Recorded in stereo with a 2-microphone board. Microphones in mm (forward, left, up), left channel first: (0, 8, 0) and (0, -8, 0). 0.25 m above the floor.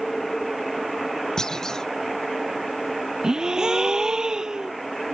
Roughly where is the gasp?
Right.